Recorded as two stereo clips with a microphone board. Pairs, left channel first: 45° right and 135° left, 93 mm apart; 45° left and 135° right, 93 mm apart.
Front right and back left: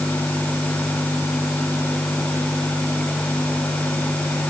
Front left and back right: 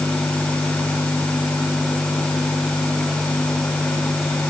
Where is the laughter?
I don't hear laughter.